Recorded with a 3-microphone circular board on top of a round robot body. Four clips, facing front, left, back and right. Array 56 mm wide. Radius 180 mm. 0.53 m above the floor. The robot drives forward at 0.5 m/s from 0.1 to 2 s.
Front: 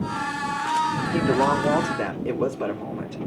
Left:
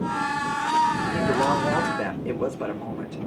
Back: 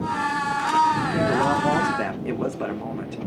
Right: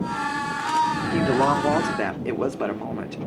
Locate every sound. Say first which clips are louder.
1.1 s a woman speaking: right 2 dB, even; 75° right, 1.6 m; by 3.2 s 95° right, 1.6 m